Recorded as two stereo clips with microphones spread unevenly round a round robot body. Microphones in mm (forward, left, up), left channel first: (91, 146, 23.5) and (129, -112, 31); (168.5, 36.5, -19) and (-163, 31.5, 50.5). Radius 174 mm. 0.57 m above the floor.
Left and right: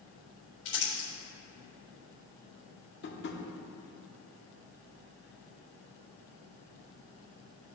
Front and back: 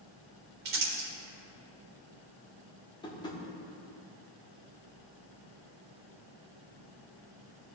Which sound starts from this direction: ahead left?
Tapping, at 3.0 s.